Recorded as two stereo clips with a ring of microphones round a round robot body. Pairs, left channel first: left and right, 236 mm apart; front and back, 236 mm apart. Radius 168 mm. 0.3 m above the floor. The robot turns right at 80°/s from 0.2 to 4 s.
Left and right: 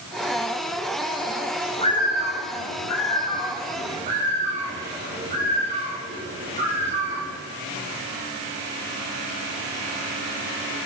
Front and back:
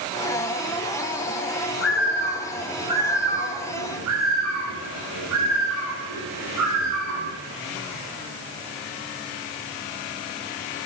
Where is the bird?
20° left, 8 m; by 7.4 s 160° right, 8 m.